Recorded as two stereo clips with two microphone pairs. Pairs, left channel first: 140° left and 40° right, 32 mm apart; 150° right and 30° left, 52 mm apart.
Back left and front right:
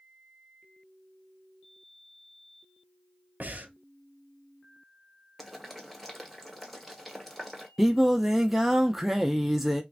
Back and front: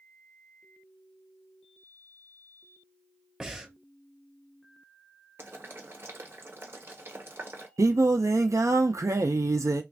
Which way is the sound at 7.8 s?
40° left.